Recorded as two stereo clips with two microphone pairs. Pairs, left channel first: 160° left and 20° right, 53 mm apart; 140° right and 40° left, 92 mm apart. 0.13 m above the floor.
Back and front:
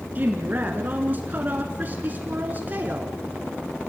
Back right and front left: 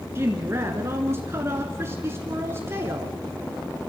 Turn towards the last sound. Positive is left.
turn(degrees=0)